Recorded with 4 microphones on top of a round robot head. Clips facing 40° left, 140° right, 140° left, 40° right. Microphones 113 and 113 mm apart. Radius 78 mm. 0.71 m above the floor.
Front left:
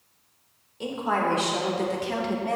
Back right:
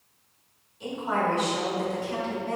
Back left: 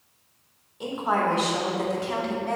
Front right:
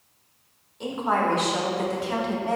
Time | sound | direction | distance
0.8 | a woman speaking | 60° left | 2 m